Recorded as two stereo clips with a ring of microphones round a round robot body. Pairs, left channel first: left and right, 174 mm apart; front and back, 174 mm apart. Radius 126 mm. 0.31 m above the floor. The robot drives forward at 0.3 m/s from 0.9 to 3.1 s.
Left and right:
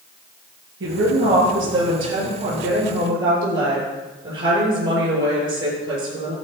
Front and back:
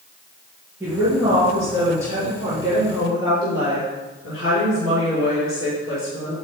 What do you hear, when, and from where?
0.8 s a woman speaking: 100° right, 6 m; by 6.3 s 105° right, 6 m